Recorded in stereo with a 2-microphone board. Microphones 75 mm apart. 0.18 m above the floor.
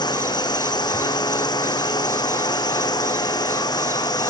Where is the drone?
75° left (ahead or behind); by 4.3 s 70° left (ahead or behind).